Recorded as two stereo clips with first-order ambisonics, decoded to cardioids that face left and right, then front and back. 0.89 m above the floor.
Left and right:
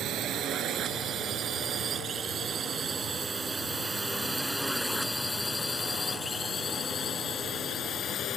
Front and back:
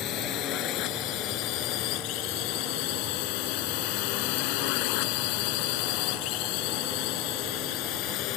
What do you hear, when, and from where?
0.0 s a drone: 40° right; by 8.4 s 35° left